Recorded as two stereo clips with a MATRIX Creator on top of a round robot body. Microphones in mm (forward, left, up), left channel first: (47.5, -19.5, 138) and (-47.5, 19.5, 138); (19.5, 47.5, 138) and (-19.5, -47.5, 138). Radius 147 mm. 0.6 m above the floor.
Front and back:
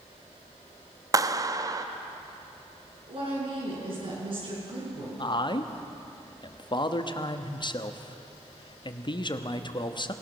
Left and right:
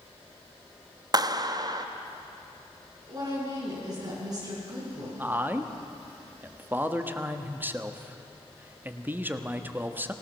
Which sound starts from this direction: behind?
A woman speaking, at 3.1 s.